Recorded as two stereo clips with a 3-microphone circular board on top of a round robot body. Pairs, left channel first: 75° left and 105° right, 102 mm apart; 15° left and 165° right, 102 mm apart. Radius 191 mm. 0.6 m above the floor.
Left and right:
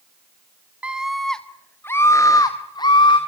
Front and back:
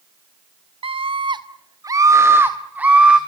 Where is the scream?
Straight behind, 1.3 m; by 3.2 s 115° left, 2 m.